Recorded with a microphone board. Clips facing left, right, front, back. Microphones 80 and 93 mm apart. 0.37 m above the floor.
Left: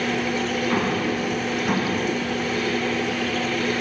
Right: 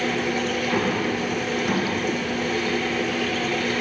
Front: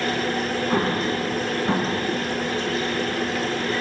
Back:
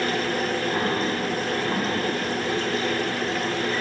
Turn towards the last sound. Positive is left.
turn(degrees=25)